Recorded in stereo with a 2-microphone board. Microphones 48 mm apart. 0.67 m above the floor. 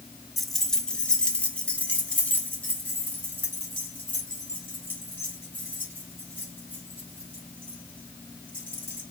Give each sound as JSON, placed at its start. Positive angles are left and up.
{"t": 0.4, "sound": "keys jangling", "side_deg": 0, "distance_m": 0.5}